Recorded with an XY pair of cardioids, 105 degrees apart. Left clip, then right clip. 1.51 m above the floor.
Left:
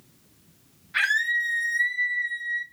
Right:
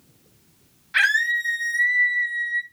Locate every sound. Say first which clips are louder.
0.9 s a scream: right 3 dB; 45° right, 2 m; by 2.6 s 30° right, 2.5 m